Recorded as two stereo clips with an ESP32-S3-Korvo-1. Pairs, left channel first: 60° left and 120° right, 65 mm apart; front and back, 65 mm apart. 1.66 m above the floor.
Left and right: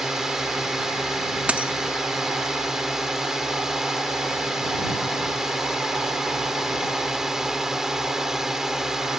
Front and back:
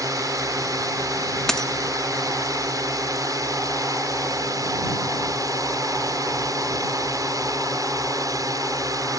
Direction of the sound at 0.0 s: 155° left.